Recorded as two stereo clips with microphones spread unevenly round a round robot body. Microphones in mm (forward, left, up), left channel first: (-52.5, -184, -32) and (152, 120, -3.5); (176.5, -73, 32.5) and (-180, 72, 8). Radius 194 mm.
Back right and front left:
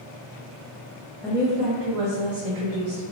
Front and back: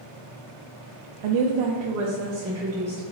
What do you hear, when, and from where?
1.2 s a woman speaking: 150° left, 0.5 m; by 3.0 s 70° left, 0.9 m